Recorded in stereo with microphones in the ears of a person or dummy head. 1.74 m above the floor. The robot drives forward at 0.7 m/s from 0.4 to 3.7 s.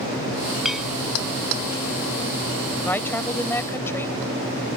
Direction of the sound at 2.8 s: 10° left (ahead or behind).